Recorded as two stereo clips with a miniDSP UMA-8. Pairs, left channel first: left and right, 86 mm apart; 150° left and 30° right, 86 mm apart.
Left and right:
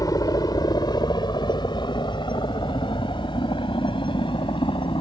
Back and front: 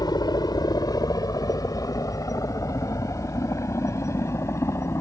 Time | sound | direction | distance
0.0 | a helicopter | 125° left | ?